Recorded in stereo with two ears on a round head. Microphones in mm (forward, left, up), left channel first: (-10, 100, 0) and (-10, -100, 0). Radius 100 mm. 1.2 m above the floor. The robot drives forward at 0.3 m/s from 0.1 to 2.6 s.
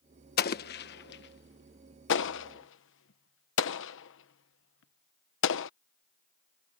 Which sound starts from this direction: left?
An explosion, at 0.4 s.